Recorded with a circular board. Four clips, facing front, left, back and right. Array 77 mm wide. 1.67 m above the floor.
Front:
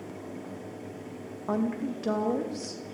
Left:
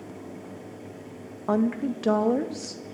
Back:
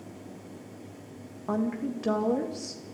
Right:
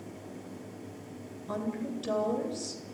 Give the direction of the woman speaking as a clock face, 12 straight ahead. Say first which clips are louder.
Left 10 dB, even; 9 o'clock.